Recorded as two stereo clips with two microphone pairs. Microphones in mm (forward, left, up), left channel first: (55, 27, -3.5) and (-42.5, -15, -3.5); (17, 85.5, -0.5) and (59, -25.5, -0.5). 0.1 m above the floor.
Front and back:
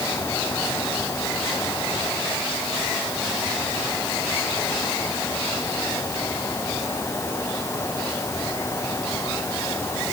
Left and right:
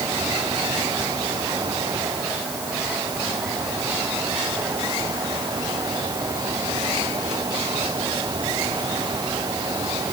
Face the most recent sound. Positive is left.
No sound to turn to.